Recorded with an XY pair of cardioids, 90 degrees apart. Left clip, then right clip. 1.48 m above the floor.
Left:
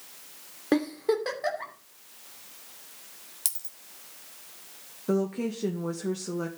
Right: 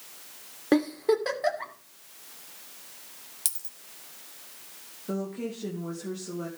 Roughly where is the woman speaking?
Ahead left.